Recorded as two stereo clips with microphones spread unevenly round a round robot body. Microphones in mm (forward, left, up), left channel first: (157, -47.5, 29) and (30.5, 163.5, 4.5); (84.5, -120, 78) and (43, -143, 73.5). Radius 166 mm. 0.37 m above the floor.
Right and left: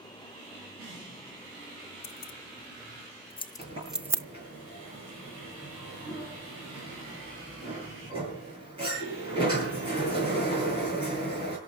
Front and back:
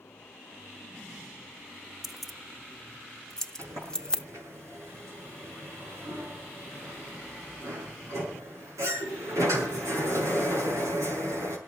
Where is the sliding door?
165° right, 7.5 m.